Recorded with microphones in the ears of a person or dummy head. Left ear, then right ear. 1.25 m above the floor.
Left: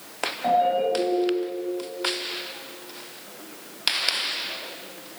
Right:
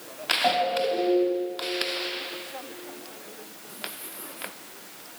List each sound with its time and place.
0.4 s a ringtone: 35° right (ahead or behind), 5.5 m